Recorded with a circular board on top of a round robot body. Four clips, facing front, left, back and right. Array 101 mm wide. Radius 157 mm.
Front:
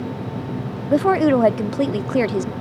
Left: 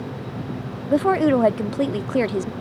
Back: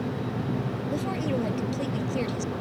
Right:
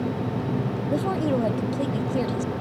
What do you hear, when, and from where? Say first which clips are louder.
0.9 s a woman speaking: left 8 dB, front 15 dB; 35° left